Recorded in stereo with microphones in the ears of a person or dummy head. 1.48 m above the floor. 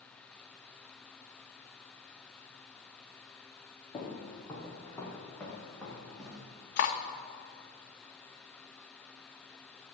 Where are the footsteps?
25° left (ahead or behind), 3 m; by 6.4 s centre (ahead or behind), 4.5 m.